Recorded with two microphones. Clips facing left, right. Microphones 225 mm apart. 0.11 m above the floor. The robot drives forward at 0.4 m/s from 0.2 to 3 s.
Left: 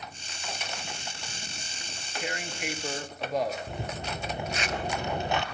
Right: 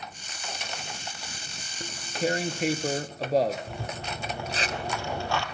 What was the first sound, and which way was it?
Tearing paper, 40° right (ahead or behind).